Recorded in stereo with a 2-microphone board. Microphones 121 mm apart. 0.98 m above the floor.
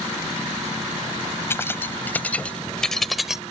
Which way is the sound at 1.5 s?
20° left (ahead or behind).